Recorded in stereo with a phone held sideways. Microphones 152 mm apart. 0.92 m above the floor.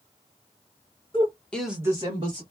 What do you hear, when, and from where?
1.1 s a woman speaking: 35° left (ahead or behind), 1.1 m; by 2.4 s 40° right (ahead or behind), 1.7 m